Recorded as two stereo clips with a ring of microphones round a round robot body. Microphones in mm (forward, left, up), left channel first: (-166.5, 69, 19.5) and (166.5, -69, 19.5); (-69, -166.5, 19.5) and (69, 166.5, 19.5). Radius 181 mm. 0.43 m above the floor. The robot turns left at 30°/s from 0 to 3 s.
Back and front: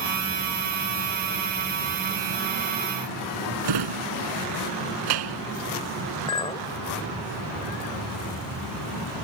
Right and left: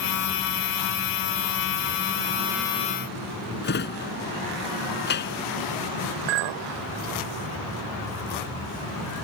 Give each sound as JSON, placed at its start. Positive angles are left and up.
{"t": 3.6, "sound": "a drawer", "azimuth_deg": -50}
{"t": 6.3, "sound": "a clink", "azimuth_deg": 80}